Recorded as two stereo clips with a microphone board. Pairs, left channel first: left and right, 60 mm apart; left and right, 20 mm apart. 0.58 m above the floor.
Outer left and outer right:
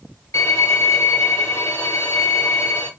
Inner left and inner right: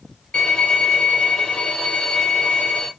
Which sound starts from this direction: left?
A violin, at 0.3 s.